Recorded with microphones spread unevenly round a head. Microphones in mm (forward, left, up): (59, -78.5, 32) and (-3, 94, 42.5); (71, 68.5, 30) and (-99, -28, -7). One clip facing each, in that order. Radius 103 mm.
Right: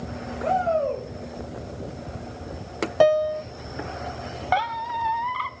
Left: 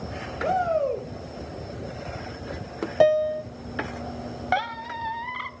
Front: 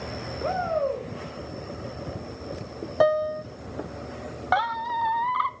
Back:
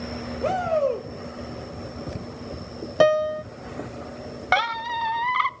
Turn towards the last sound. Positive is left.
turn(degrees=170)